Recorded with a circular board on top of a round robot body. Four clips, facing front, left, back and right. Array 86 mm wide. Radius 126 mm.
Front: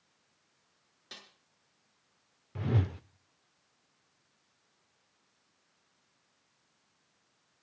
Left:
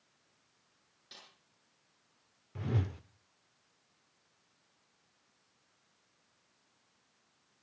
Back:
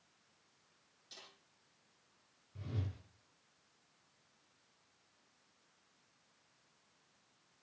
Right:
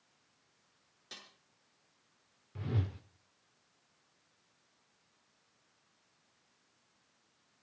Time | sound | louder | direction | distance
1.1 | a snare drum | right 3 dB, front 6 dB | 15° right | 7 m
2.5 | a whoosh | left 2 dB, front 13 dB | 15° left | 0.7 m